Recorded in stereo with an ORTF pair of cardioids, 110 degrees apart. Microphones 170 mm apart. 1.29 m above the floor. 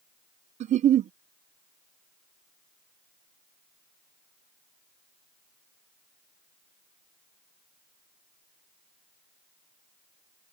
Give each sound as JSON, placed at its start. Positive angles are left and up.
{"t": 0.6, "sound": "a giggle", "azimuth_deg": -45}